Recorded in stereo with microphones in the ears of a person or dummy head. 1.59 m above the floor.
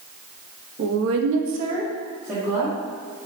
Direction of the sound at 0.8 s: 60° right (ahead or behind).